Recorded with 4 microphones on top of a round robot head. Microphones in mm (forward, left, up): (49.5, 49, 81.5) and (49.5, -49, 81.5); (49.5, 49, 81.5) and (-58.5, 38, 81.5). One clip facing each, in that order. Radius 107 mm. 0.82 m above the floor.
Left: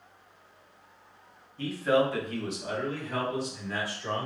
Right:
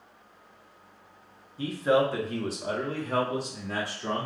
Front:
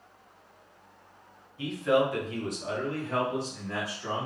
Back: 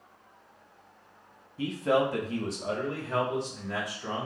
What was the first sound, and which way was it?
A man speaking, 160° right.